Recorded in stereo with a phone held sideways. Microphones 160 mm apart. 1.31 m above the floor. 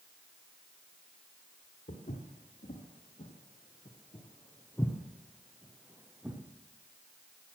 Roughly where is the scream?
I don't hear a scream.